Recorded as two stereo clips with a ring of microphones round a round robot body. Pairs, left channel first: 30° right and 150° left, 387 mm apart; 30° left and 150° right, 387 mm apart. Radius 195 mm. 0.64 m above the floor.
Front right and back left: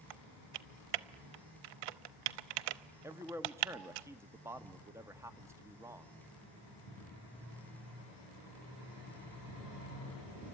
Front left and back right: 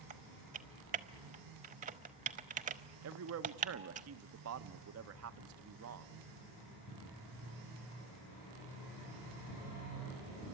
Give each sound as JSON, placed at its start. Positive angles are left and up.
{"t": 0.1, "sound": "typing on a keyboard", "azimuth_deg": 140, "distance_m": 0.6}
{"t": 3.0, "sound": "a man speaking", "azimuth_deg": -130, "distance_m": 0.9}